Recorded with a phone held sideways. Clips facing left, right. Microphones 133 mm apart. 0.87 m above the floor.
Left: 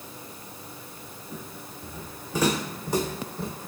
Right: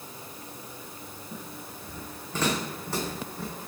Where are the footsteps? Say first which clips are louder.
Left 2 dB; 5° left (ahead or behind), 4 m; by 3.5 s 20° left (ahead or behind), 2.5 m.